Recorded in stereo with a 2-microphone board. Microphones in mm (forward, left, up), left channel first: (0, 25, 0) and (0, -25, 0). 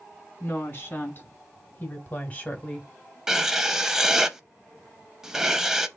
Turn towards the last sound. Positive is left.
turn(degrees=-10)  # may be behind; listen again after turning